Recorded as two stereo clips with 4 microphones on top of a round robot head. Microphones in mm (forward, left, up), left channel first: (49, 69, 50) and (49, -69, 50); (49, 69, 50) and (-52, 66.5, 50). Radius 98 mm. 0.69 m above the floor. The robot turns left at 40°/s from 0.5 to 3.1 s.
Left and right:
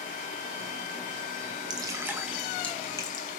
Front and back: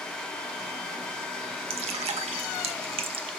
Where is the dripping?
150° right, 1.0 m; by 3.3 s 155° left, 1.0 m.